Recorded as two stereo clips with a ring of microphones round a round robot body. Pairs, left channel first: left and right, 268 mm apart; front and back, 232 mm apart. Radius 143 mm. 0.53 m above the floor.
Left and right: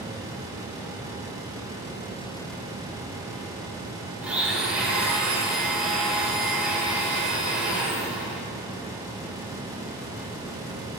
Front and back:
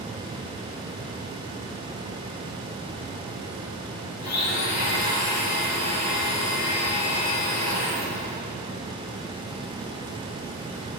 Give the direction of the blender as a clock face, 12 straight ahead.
12 o'clock.